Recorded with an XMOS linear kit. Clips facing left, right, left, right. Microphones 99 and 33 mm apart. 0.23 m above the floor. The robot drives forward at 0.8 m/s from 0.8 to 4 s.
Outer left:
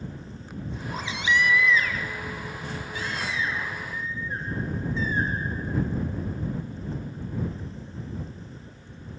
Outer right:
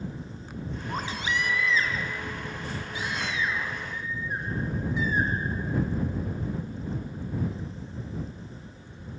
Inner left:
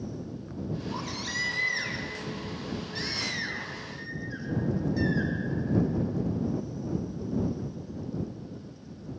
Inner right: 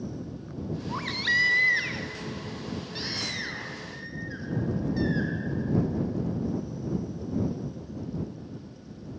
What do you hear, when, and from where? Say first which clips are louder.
0.9 s a baby crying: outer left 4 dB, inner right 7 dB; 55° right (ahead or behind), 1.0 m; by 5.3 s 15° right (ahead or behind), 3 m